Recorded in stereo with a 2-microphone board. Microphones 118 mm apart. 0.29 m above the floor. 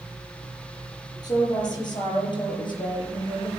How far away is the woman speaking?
About 8 m.